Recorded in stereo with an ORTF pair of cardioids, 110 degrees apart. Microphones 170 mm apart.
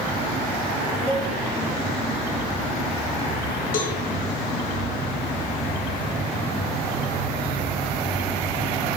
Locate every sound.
1.1 s a cowbell: straight ahead, 6 m
3.7 s a cowbell: 55° left, 2.5 m